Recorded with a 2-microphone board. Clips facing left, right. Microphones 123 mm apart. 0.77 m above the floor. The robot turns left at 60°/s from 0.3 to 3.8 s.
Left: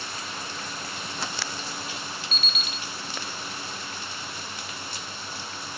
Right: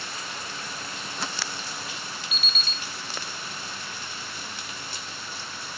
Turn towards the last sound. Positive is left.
turn(degrees=100)